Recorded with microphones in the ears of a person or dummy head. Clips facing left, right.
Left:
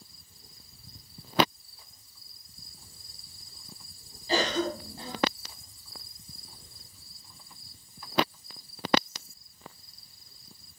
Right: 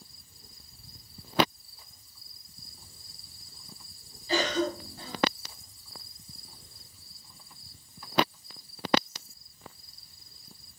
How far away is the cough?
About 1.3 m.